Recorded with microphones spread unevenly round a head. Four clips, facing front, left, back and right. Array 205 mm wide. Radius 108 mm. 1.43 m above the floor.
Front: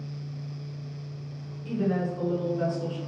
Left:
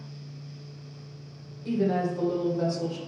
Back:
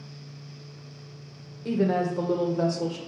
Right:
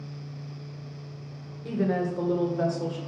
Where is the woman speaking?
160° right, 1.7 m.